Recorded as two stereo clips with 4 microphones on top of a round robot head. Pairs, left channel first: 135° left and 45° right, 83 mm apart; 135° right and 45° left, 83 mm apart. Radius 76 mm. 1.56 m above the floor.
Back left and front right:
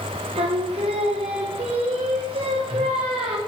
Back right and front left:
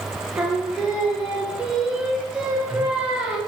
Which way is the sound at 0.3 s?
35° right.